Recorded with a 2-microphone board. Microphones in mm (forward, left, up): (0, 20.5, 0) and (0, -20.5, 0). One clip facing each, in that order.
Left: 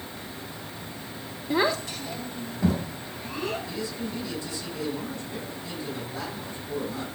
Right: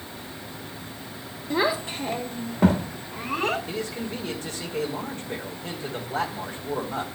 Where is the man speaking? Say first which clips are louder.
Right 2 dB; 55° right (ahead or behind), 2.5 m.